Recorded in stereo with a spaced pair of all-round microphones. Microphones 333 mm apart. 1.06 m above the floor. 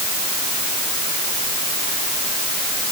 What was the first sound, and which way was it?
Only background noise.